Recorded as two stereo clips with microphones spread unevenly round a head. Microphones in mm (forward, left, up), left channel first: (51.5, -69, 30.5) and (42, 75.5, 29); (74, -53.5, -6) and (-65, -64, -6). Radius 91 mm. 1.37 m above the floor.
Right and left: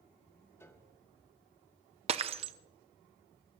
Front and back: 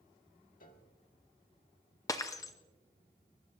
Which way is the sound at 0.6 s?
10° right.